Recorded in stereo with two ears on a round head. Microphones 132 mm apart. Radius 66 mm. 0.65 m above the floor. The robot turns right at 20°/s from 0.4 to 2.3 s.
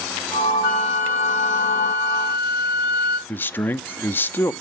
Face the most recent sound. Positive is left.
turn(degrees=15)  # may be behind; listen again after turning